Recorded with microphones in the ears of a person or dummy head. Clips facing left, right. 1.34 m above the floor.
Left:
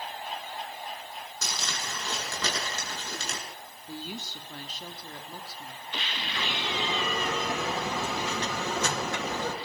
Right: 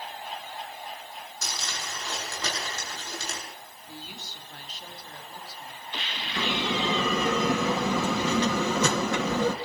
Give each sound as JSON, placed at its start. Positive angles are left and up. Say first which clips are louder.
{"t": 1.4, "sound": "crumpling", "louder": "left 1 dB", "side_deg": 60, "distance_m": 9.0}
{"t": 3.9, "sound": "a woman speaking", "louder": "left 6 dB", "side_deg": 70, "distance_m": 3.0}
{"t": 6.4, "sound": "a bell", "louder": "right 6 dB", "side_deg": -60, "distance_m": 2.0}